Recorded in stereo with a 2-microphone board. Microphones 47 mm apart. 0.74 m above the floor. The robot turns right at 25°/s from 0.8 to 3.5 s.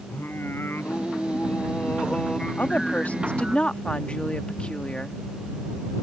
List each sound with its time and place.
0.1 s singing: 130° left; by 3.6 s 165° right
2.6 s a woman speaking: 40° left (ahead or behind); by 5.2 s 20° left (ahead or behind)